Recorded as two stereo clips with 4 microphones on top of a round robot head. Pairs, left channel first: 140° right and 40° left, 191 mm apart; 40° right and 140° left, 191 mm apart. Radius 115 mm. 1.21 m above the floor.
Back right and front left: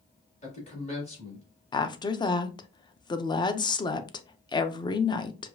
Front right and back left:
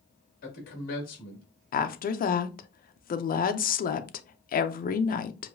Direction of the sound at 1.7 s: 75° right.